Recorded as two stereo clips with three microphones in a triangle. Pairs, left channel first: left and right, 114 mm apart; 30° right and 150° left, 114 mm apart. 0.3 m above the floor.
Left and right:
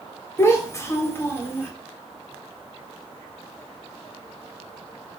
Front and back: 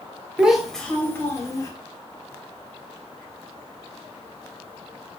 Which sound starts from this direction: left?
A child speaking, at 0.4 s.